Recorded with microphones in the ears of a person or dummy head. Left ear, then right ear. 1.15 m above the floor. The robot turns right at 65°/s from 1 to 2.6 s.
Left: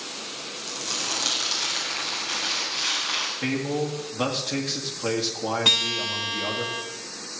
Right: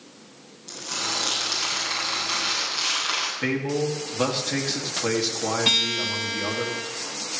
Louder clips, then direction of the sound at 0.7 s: Right 1 dB; 65° left.